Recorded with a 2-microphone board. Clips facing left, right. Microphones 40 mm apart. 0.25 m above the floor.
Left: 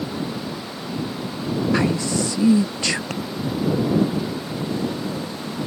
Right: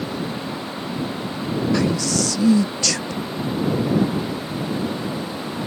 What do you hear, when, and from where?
1.7 s a man speaking: 20° left (ahead or behind)
3.1 s tapping: 60° left (ahead or behind)